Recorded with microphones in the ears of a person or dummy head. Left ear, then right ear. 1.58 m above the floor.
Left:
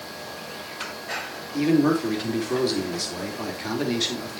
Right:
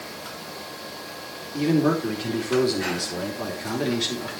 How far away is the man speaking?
About 3.5 m.